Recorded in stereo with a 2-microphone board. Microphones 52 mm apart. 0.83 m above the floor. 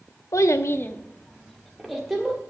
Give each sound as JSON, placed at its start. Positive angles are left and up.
{"t": 0.3, "sound": "a child speaking", "side_deg": 75, "distance_m": 0.9}